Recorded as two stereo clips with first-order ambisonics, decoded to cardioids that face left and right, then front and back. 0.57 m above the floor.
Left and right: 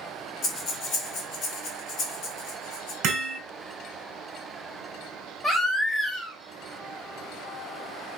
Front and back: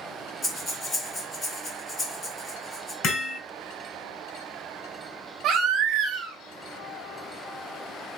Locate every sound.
0.4 s breathing: 60° left, 1.6 m
3.0 s hammering: 50° right, 2 m
5.4 s a baby crying: 160° left, 1.0 m